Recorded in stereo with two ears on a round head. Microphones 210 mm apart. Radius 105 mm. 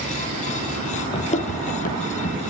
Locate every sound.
1.1 s running footsteps: 25° left (ahead or behind), 1.6 m; by 2.4 s 35° left (ahead or behind), 2.5 m